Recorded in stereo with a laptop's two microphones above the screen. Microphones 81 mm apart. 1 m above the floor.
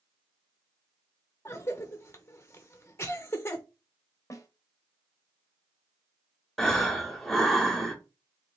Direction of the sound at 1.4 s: 30° left (ahead or behind).